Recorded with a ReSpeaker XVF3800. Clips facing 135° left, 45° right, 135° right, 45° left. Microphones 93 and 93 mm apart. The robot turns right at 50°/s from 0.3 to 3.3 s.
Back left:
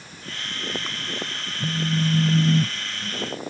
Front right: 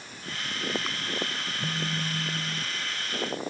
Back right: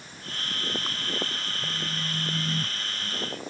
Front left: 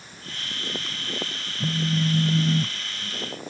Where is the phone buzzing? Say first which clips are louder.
Back left 9 dB, front left 14 dB; 55° left; by 3.3 s 140° left.